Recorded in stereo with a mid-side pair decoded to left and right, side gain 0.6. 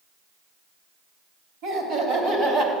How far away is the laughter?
About 3.5 m.